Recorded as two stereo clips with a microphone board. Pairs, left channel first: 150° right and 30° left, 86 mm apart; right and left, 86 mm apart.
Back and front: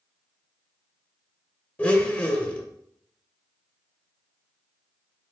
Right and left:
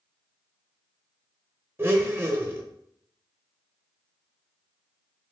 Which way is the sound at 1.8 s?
145° left.